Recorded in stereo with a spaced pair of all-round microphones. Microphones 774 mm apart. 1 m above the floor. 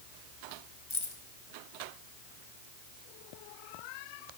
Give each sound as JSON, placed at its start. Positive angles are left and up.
{"t": 0.9, "sound": "keys jangling", "side_deg": 35, "distance_m": 1.6}